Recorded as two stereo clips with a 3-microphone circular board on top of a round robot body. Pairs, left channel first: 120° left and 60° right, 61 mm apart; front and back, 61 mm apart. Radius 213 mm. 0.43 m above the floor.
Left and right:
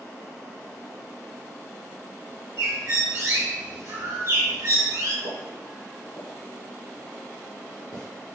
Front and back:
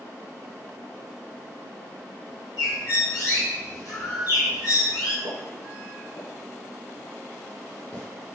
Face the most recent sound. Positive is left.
turn(degrees=45)